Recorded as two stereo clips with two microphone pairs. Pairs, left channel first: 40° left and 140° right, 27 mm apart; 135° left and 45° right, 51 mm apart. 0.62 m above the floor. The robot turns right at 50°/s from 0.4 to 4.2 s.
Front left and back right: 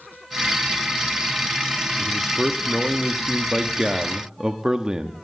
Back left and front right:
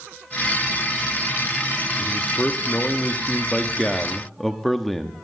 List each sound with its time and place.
2.0 s a man speaking: 115° left, 0.8 m; by 5.2 s 135° right, 0.8 m